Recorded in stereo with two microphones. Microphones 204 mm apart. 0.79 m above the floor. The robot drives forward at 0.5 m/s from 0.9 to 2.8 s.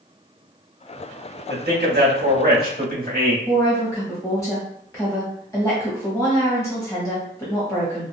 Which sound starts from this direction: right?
A man speaking, at 1.5 s.